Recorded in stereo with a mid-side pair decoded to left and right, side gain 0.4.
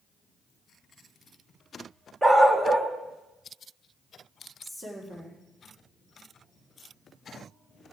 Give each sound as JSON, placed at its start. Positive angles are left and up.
{"t": 2.2, "sound": "a dog barking", "azimuth_deg": -25, "distance_m": 1.7}
{"t": 4.6, "sound": "a woman speaking", "azimuth_deg": -30, "distance_m": 3.5}